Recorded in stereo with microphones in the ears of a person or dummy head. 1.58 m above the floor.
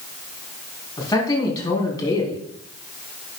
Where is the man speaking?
20° left (ahead or behind), 4 m.